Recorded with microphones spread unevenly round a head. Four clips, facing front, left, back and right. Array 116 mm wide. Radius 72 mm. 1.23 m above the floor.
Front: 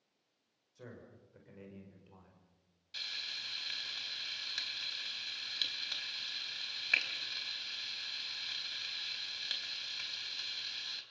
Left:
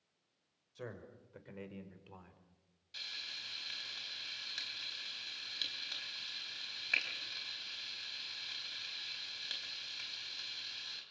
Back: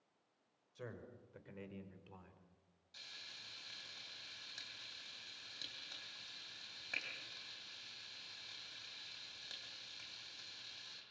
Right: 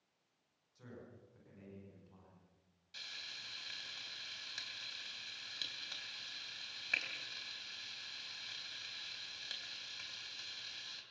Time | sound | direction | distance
0.8 | a man speaking | 95° left | 5.5 m
2.9 | frying | 15° left | 4 m